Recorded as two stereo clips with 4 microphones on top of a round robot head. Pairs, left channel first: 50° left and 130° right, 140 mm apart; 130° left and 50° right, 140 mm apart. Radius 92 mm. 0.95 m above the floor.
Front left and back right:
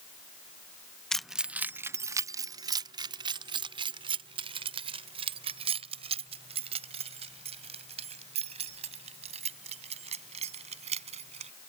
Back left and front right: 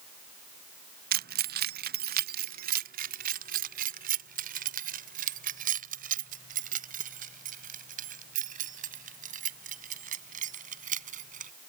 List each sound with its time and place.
1.1 s keys jangling: 35° right; by 11.5 s 80° right